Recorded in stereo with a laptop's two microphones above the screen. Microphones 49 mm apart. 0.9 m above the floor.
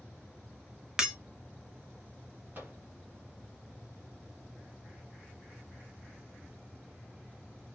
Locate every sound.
1.0 s breaking glass: 15° right (ahead or behind), 0.7 m
2.5 s a microwave: 50° right (ahead or behind), 1.1 m